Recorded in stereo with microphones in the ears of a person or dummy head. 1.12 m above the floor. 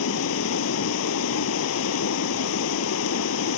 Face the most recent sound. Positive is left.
turn(degrees=75)  # may be behind; listen again after turning